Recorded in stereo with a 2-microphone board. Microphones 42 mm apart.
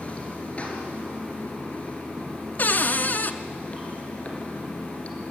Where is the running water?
30° left (ahead or behind), 3 m.